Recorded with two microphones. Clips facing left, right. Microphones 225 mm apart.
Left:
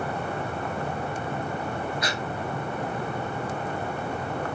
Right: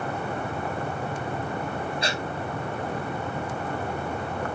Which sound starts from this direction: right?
Breathing, at 2.0 s.